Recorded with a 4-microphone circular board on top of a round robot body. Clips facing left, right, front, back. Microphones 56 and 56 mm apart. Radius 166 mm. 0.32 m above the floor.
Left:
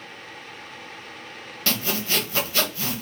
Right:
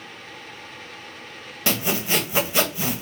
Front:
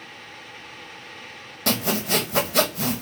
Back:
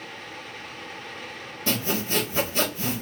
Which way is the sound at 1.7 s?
15° right.